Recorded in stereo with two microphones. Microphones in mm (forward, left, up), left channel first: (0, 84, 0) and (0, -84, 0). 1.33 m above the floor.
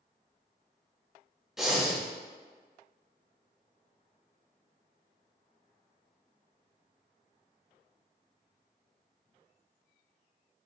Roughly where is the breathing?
Centre.